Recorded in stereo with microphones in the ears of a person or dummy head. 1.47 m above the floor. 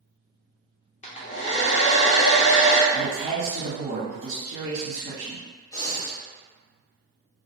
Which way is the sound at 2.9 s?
55° right (ahead or behind).